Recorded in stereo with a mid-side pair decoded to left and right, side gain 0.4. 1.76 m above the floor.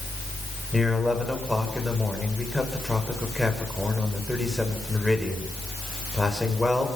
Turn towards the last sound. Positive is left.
turn(degrees=5)